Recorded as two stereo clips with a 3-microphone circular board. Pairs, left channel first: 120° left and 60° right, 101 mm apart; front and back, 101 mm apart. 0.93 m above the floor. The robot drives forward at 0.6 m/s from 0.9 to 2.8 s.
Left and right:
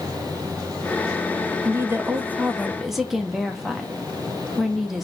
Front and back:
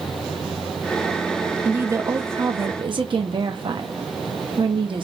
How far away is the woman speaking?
About 0.7 m.